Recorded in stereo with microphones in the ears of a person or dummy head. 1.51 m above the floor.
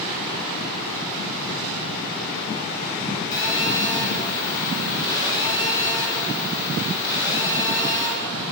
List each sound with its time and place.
3.3 s a phone buzzing: 20° left (ahead or behind), 3 m